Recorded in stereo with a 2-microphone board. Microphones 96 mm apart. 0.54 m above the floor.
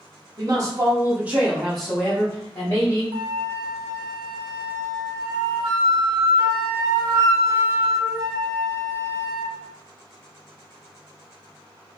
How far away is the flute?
About 0.5 m.